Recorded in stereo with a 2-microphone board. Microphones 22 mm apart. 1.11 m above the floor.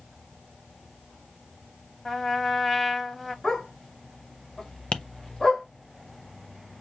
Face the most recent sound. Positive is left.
turn(degrees=55)  # may be behind; listen again after turning